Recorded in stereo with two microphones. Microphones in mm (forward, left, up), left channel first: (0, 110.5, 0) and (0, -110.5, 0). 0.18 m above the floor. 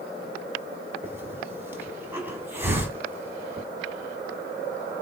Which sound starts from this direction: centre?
A hiss, at 1.0 s.